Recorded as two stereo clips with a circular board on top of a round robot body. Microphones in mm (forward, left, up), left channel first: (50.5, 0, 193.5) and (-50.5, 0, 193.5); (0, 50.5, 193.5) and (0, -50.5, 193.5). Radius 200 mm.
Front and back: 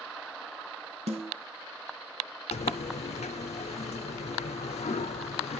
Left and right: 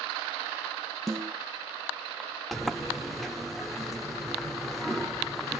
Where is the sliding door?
Straight ahead, 0.6 m.